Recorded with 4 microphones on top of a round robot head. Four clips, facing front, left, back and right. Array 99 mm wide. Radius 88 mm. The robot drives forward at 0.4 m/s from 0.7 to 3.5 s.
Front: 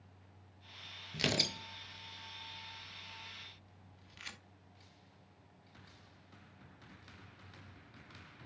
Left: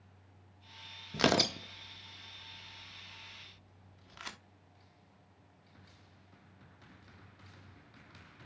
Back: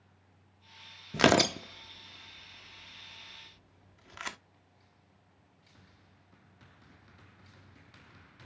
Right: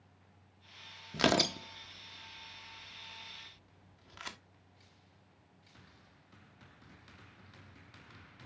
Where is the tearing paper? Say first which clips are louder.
Even, back 13 dB; 175° left, 0.6 m; by 4.4 s straight behind, 1.6 m.